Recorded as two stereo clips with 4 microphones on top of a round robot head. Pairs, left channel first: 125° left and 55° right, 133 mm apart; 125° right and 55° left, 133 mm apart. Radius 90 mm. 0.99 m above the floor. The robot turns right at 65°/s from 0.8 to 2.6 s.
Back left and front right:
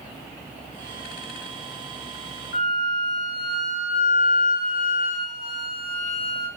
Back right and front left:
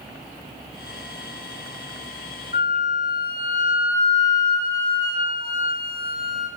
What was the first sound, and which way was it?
A flute, 120° left.